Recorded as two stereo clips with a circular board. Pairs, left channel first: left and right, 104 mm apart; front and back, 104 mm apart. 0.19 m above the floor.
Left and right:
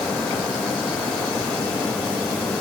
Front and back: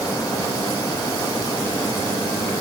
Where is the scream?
I don't hear a scream.